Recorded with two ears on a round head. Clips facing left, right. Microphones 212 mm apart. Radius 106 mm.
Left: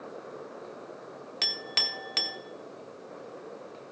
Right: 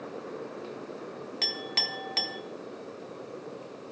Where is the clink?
15° left (ahead or behind), 0.8 m.